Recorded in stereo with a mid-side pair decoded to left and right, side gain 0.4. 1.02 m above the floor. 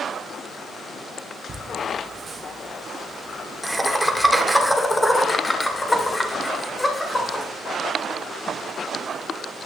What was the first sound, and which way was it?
Laughter, 45° right.